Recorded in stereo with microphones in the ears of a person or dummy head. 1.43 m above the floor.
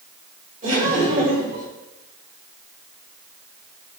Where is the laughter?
45° right (ahead or behind), 6 m.